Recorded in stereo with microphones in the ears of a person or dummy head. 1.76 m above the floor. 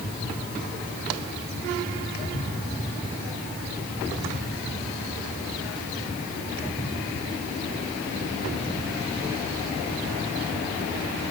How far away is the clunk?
No clunk in this recording.